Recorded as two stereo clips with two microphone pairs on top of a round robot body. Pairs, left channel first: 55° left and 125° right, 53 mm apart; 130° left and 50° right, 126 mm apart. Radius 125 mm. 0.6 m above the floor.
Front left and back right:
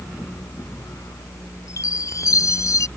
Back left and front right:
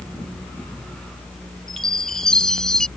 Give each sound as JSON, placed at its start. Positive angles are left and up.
{"t": 1.7, "sound": "a chime", "azimuth_deg": 45}